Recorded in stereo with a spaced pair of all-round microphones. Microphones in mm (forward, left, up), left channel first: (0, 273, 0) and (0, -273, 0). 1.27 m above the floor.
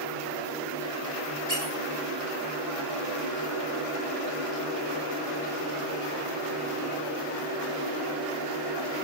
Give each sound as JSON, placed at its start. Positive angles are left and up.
{"t": 1.5, "sound": "a squeak", "side_deg": -70, "distance_m": 4.5}